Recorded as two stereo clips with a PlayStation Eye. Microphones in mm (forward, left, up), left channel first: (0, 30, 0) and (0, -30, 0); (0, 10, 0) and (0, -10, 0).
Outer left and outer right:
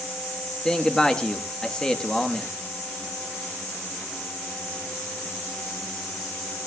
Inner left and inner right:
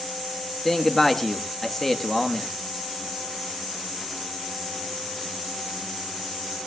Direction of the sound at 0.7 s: 10° left (ahead or behind).